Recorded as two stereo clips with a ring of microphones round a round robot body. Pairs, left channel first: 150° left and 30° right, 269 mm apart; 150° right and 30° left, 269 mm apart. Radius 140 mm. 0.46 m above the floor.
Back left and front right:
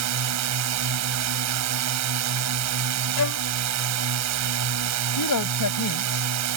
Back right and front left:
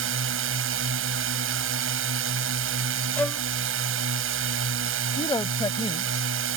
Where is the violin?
130° left.